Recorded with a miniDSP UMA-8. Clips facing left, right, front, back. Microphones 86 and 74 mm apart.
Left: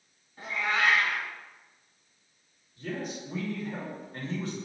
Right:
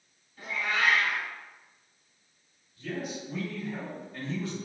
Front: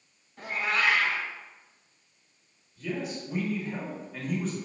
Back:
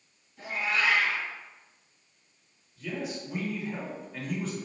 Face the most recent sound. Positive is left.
turn(degrees=90)